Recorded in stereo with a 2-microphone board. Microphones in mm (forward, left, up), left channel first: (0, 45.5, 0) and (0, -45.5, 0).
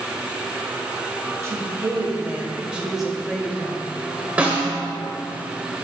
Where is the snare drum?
15° right (ahead or behind), 1.5 m.